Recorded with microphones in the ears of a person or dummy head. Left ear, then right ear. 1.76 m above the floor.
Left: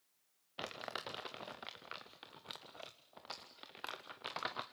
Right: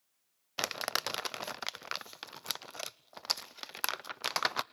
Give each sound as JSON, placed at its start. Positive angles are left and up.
{"t": 0.6, "sound": "crumpling", "side_deg": -75, "distance_m": 0.6}